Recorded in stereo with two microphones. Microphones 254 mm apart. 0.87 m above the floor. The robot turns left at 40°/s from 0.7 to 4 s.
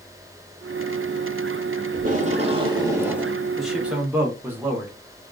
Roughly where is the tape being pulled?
Behind right.